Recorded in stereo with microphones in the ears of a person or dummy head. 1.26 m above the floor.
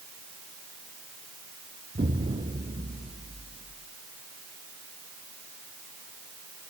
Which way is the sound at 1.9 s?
25° right (ahead or behind).